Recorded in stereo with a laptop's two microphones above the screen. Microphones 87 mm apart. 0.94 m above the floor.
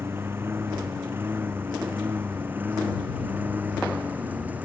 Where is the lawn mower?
25° right (ahead or behind); by 4.7 s 20° right (ahead or behind).